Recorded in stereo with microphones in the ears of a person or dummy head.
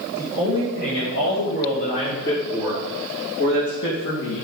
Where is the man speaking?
75° left (ahead or behind), 5 m; by 4.5 s 65° left (ahead or behind), 2 m.